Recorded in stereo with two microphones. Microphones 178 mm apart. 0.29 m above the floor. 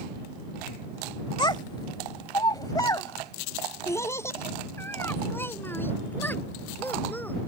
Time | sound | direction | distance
1.4 | a child speaking | 25° left (ahead or behind) | ?